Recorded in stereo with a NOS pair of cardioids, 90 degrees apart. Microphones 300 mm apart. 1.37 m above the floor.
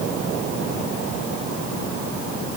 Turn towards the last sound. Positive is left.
No sound to turn to.